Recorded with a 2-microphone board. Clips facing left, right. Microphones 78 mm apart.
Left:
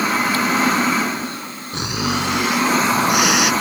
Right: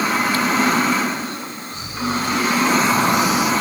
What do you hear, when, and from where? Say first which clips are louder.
1.7 s snoring: left 2 dB; 85° left